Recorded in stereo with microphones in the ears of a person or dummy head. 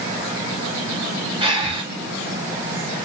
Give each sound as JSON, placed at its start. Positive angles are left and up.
{"t": 1.4, "sound": "breathing", "side_deg": -35, "distance_m": 0.8}